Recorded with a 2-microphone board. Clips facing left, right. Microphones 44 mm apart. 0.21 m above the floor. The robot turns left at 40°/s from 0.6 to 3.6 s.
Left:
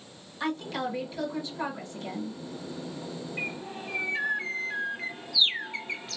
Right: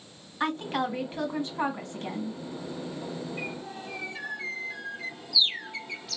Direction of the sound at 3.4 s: 30° left (ahead or behind).